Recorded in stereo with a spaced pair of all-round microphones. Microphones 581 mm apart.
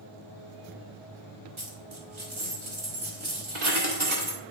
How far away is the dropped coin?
About 1.3 m.